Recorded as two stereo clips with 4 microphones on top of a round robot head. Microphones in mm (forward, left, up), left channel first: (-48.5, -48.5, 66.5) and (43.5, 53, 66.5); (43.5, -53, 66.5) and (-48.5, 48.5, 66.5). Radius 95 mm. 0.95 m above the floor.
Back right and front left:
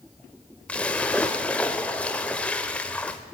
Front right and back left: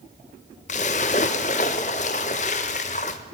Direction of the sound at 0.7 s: 55° right.